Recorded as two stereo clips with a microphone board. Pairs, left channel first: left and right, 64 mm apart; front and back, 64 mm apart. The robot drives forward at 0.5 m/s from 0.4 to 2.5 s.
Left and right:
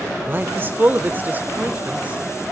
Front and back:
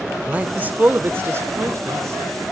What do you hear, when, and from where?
0.3 s a man speaking: 125° right, 1.5 m; by 2.4 s 155° right, 2 m